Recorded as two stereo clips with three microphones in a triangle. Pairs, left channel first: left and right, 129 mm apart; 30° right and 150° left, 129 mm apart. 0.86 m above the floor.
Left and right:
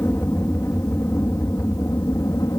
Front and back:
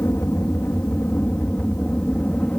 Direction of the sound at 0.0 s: 30° left.